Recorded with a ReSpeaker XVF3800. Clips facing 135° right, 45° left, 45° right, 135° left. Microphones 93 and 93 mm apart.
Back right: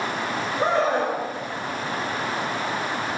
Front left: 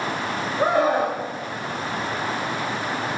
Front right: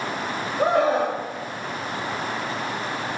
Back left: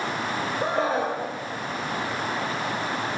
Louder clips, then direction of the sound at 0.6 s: Front left 2 dB, front right 6 dB; 35° right.